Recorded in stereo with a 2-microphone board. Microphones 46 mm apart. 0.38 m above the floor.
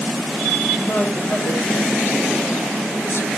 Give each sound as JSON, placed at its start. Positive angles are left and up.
{"t": 0.8, "sound": "a woman speaking", "side_deg": 50, "distance_m": 6.5}